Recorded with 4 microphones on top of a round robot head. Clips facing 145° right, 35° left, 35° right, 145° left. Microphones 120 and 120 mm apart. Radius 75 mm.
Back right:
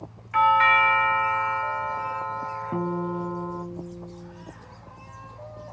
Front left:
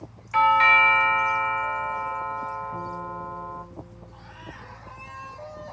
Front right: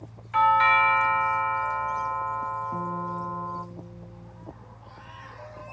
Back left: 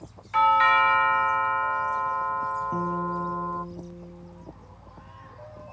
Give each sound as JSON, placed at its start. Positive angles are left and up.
{"t": 0.3, "sound": "a doorbell", "azimuth_deg": 55, "distance_m": 0.7}
{"t": 2.7, "sound": "a guitar", "azimuth_deg": -145, "distance_m": 0.5}